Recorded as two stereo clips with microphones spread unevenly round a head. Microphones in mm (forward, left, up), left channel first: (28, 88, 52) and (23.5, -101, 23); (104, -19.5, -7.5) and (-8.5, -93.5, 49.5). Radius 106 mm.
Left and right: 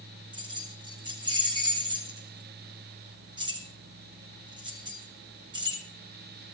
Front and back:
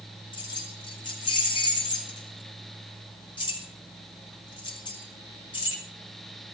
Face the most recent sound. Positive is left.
turn(degrees=-25)